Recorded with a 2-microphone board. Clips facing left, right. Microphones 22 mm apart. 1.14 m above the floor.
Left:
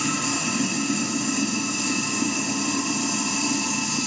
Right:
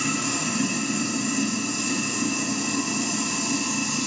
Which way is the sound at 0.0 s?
35° left (ahead or behind).